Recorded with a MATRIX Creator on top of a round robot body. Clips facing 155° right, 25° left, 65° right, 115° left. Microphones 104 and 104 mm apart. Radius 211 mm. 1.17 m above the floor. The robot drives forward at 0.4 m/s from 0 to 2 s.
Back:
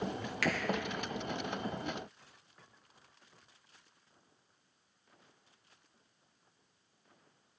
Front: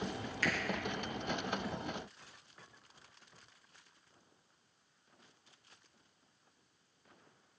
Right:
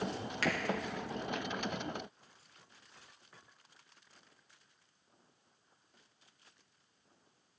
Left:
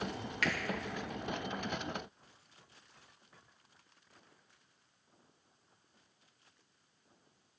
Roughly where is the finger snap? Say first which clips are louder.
Back 3 dB, right 1 dB; behind right.